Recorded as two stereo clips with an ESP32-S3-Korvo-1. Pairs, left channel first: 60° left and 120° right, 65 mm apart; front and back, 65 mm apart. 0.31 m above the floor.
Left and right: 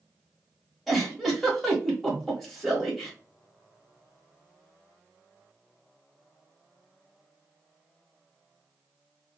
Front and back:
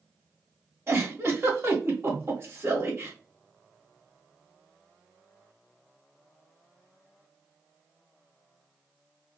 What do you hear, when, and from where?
0.9 s a giggle: 150° left, 1.3 m